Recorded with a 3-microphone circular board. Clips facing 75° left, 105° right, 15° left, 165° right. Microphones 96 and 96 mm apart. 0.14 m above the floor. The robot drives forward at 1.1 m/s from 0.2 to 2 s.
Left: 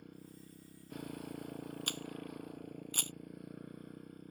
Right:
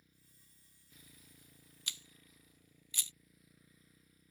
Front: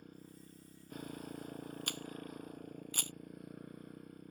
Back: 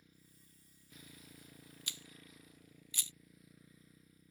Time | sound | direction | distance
0.0 | a motorcycle | 50° left | ?
1.9 | a camera shutter | 45° left | ?